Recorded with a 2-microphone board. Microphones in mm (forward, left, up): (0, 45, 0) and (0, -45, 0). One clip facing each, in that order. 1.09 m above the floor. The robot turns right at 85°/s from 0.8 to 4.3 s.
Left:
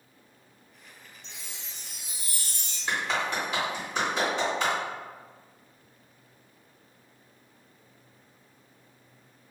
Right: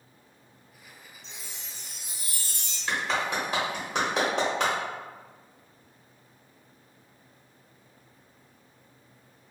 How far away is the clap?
About 1.1 m.